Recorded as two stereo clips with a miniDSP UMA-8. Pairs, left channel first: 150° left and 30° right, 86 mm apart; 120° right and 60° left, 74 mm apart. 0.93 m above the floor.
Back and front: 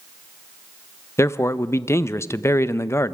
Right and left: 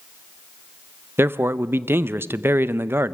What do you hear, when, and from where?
1.2 s a man speaking: 105° left, 0.6 m